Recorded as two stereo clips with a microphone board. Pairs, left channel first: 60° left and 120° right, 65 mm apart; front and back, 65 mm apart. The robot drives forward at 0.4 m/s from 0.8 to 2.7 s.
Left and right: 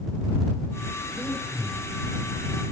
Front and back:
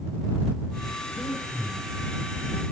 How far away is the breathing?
About 6 m.